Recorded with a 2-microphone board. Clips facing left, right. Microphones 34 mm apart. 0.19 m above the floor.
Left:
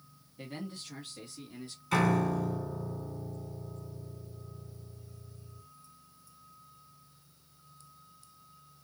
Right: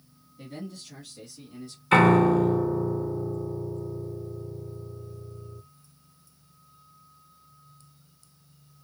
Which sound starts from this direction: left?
A man speaking, at 0.4 s.